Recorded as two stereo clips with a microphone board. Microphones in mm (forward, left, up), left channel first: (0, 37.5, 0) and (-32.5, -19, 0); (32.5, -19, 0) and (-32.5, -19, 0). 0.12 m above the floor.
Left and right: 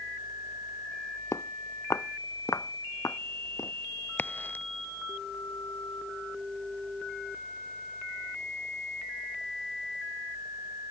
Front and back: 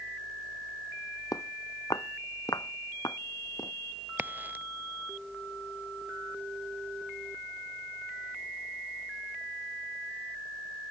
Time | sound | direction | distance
1.3 | footsteps | 20° left | ?
4.2 | a crack | 120° left | ?